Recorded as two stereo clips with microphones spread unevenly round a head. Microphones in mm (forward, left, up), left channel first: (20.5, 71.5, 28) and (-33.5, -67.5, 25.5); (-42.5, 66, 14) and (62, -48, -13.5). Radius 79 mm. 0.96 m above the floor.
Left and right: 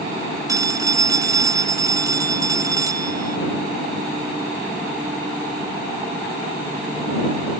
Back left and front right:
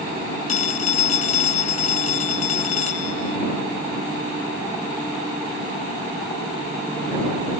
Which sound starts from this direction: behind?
A phone ringing, at 0.5 s.